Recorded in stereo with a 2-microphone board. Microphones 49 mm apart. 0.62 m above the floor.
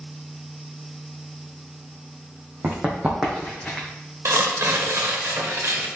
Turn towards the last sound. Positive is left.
turn(degrees=-70)  # may be behind; listen again after turning